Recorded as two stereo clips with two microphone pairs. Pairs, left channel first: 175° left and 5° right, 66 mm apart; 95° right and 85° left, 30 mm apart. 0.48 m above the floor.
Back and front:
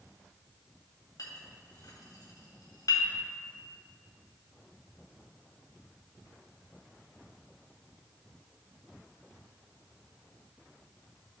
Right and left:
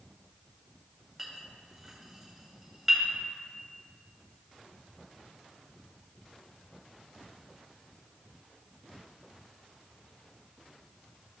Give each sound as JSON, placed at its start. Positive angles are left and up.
{"t": 1.2, "sound": "a clink", "azimuth_deg": 170, "distance_m": 2.0}